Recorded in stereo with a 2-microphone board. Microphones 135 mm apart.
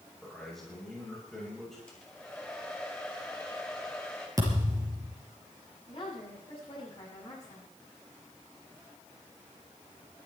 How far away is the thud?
About 5 m.